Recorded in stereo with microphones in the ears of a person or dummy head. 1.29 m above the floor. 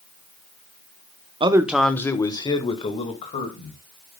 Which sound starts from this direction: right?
A man speaking, at 1.4 s.